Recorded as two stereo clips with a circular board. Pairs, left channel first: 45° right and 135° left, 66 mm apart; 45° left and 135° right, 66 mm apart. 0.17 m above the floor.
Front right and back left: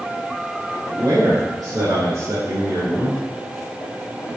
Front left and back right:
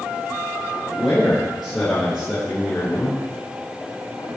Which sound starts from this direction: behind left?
A man speaking, at 0.9 s.